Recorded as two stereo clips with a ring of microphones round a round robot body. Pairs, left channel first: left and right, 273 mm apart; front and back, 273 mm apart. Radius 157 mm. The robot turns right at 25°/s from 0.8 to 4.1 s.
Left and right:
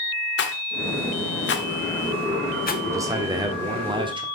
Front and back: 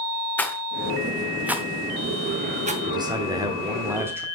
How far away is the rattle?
About 1.0 m.